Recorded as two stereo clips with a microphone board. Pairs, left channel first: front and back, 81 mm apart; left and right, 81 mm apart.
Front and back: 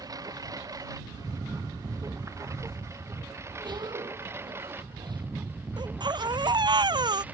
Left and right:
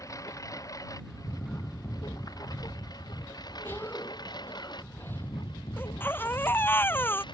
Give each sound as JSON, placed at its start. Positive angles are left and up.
{"t": 0.0, "sound": "a lawn mower", "azimuth_deg": 140}
{"t": 3.6, "sound": "a cough", "azimuth_deg": 155}
{"t": 5.8, "sound": "a baby crying", "azimuth_deg": 155}